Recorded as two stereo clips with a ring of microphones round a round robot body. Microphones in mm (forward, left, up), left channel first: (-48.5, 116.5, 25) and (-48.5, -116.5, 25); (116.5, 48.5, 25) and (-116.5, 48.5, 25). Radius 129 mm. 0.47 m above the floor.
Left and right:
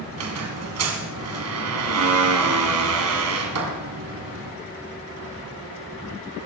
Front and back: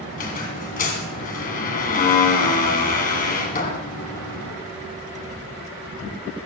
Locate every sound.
0.1 s a squeak: 60° right, 2.5 m